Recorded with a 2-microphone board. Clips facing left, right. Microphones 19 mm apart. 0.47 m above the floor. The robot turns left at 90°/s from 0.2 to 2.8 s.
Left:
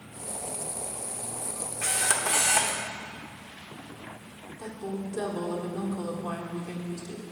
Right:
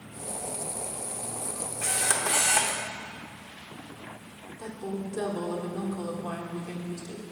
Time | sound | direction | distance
1.8 | a camera shutter | 30° left | 0.8 m
4.6 | a woman speaking | 5° left (ahead or behind) | 1.3 m